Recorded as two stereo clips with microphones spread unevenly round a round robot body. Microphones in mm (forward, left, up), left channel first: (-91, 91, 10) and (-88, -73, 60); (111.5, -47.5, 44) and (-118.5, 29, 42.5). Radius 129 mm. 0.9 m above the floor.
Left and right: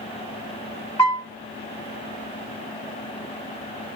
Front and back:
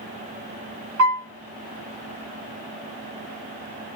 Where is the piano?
150° left, 1.6 m.